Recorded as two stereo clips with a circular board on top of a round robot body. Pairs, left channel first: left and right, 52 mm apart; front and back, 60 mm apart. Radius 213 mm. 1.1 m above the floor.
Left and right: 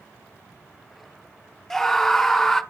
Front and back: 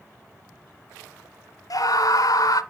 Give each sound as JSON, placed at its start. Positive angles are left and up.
{"t": 1.7, "sound": "a scream", "azimuth_deg": 5, "distance_m": 1.5}